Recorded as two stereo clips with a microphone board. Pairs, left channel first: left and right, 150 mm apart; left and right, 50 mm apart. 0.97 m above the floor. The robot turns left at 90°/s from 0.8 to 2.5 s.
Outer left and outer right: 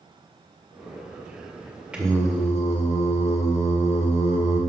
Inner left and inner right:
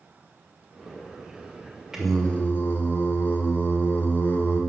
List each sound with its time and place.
1.9 s singing: 175° right, 1.8 m; by 4.6 s 135° left, 1.8 m